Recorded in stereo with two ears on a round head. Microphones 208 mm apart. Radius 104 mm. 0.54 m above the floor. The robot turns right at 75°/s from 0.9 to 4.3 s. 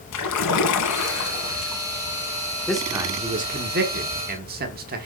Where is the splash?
100° left, 1.3 m; by 1.8 s 170° left, 1.3 m.